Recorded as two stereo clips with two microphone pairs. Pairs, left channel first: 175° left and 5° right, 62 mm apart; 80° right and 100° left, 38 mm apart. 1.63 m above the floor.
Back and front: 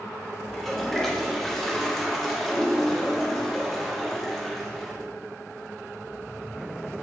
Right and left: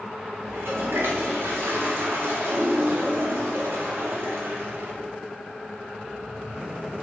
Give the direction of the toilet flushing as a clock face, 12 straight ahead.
9 o'clock.